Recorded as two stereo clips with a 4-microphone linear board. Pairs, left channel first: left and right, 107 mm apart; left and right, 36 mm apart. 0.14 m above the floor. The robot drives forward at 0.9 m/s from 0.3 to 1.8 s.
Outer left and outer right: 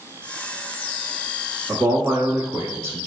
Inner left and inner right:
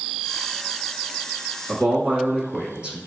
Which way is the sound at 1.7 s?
25° right (ahead or behind).